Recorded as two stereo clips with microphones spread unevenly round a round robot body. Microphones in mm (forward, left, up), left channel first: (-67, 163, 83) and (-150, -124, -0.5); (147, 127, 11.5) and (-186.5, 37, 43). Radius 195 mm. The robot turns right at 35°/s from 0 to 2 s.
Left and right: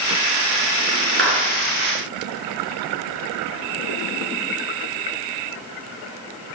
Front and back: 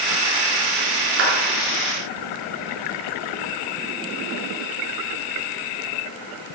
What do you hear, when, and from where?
1.2 s a clap: 155° right, 6 m; by 1.4 s 150° right, 6 m